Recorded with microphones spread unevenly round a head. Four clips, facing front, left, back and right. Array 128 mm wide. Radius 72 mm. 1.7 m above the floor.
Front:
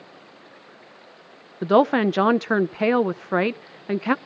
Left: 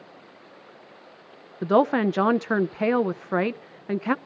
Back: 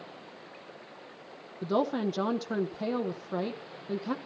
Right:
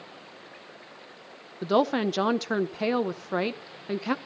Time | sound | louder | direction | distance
1.6 | a woman speaking | left 4 dB, front 11 dB | 5° left | 0.5 m